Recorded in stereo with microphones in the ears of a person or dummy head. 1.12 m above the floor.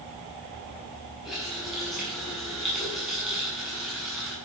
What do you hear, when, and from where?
1.2 s a running tap: 5° right (ahead or behind), 8 m